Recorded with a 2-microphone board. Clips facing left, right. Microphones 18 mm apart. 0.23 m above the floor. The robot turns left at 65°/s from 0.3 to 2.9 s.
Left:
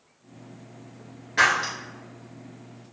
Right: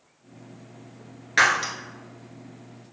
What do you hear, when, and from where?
1.4 s breaking glass: 60° right (ahead or behind), 1.1 m; by 1.7 s 75° right (ahead or behind), 1.1 m